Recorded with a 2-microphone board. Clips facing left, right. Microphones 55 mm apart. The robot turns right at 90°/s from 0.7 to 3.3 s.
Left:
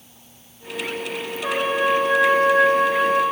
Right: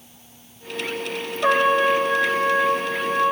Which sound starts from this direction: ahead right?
A trumpet, at 1.4 s.